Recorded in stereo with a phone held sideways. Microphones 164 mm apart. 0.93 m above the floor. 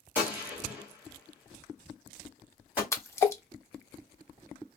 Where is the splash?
15° left (ahead or behind), 0.5 m.